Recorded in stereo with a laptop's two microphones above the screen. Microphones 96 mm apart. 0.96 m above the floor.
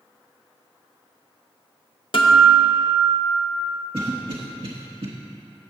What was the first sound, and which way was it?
A guitar, 55° left (ahead or behind).